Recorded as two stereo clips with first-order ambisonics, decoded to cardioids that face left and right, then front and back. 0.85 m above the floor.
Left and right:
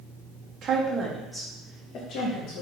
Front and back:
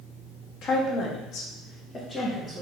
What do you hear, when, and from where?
0.6 s a woman speaking: 35° right, 1.1 m; by 2.6 s 90° left, 1.2 m